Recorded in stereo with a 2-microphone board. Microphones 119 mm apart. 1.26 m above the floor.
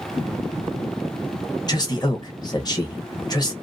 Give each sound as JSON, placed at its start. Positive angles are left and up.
{"t": 1.7, "sound": "a man speaking", "side_deg": 35, "distance_m": 1.0}